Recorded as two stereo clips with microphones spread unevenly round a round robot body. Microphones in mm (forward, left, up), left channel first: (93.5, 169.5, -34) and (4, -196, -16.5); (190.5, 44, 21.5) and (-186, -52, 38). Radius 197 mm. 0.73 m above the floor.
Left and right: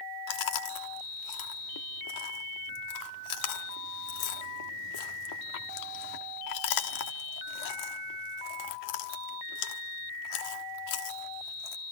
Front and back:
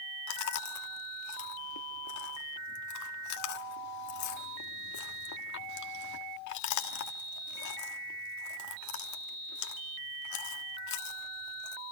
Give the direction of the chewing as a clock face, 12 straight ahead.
10 o'clock.